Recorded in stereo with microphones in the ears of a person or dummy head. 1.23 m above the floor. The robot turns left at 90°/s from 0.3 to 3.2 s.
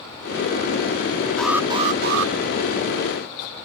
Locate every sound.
1.4 s an alarm: 5° left; by 2.3 s 80° right